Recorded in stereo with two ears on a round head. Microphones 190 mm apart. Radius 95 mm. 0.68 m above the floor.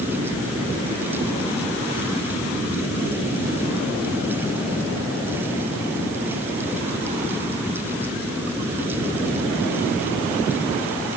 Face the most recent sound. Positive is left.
No sound to turn to.